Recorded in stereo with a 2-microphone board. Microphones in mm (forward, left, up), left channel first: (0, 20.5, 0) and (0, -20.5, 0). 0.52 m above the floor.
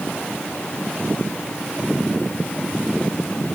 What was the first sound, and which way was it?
Only background noise.